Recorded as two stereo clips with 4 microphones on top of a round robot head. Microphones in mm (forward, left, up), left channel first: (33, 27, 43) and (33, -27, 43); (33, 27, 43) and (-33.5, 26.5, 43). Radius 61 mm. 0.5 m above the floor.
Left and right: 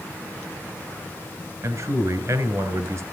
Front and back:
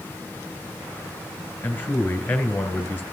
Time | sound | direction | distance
1.6 | a man speaking | 70° right | 3 m